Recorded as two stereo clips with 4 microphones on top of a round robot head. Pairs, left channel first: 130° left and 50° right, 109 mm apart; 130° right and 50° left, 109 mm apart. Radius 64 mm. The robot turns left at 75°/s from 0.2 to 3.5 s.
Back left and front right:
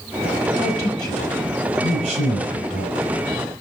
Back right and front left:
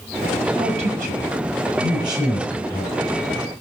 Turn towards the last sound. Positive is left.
turn(degrees=-115)